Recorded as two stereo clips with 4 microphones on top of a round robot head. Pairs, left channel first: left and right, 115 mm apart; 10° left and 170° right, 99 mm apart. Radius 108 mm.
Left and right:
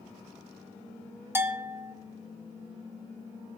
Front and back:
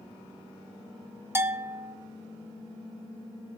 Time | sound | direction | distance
1.4 | a bell | 135° right | 0.7 m